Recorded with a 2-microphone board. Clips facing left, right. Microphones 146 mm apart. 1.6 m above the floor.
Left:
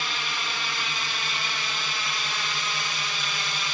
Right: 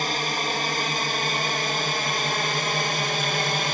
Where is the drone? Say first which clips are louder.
Right 7 dB; 45° right (ahead or behind); by 3.7 s 50° right (ahead or behind).